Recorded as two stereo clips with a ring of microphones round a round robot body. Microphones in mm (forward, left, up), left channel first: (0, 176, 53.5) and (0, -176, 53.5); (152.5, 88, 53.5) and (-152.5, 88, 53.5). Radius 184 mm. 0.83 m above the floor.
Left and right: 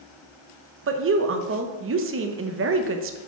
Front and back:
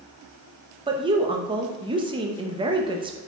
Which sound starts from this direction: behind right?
A woman speaking, at 0.9 s.